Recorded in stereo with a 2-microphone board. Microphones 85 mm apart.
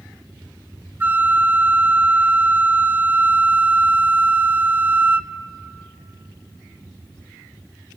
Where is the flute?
25° right (ahead or behind), 0.7 m.